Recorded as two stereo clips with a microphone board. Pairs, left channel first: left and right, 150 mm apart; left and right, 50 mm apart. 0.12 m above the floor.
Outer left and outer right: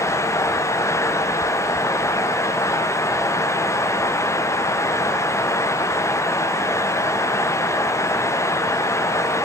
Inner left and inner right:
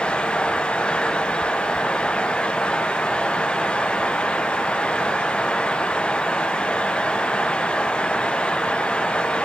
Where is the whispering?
No whispering in this recording.